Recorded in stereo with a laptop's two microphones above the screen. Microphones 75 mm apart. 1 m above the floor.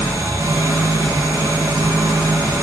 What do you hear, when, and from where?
0.0 s an engine running: 60° right (ahead or behind), 1.1 m